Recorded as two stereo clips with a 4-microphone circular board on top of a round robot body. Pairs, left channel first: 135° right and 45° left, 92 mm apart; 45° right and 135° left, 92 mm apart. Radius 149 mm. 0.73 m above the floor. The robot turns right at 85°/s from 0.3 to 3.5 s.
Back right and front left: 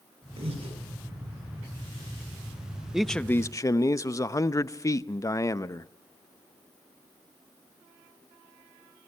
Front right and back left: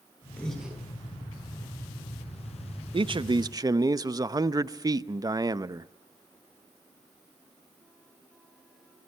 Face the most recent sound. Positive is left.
turn(degrees=175)